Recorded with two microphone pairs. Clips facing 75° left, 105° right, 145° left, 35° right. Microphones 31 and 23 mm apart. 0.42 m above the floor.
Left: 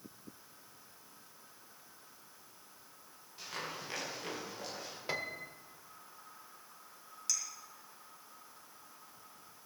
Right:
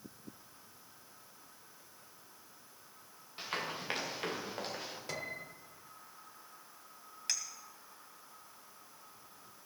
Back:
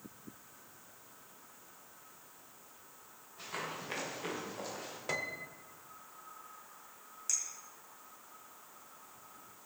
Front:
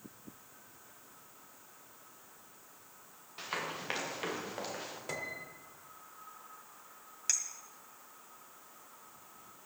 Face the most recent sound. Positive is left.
turn(degrees=-65)